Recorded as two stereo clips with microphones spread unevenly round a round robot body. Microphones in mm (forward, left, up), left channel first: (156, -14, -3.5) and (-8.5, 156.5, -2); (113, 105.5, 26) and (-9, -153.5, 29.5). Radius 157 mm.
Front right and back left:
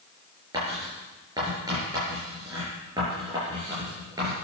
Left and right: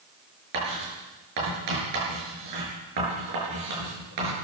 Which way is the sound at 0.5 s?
145° right.